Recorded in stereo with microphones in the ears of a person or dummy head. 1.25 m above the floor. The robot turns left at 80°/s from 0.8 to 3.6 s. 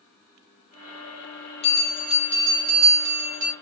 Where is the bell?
35° left, 1.0 m; by 3.5 s 115° right, 1.0 m.